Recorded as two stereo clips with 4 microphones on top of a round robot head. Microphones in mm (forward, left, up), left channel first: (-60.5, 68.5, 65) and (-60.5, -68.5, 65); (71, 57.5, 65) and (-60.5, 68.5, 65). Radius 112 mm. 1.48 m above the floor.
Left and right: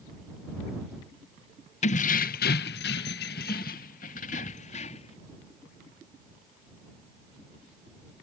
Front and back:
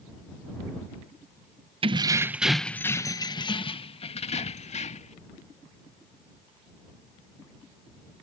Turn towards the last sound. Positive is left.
turn(degrees=35)